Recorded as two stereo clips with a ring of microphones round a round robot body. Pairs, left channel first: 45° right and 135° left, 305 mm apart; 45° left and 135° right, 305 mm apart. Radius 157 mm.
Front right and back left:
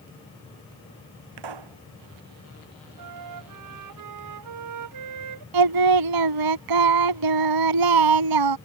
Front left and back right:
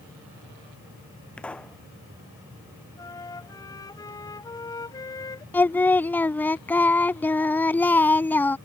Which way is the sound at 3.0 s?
125° left.